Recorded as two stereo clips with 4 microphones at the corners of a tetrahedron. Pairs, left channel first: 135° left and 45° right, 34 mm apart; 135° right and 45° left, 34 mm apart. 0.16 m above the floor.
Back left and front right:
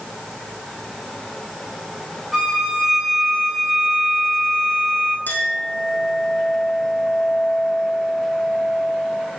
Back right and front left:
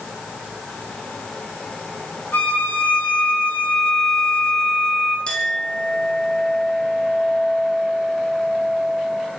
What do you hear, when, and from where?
2.3 s a violin: 130° right, 6.5 m
5.3 s a clink: 170° left, 4 m